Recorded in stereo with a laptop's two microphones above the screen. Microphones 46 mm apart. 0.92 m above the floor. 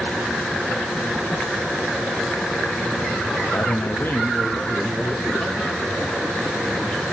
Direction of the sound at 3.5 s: 50° left (ahead or behind).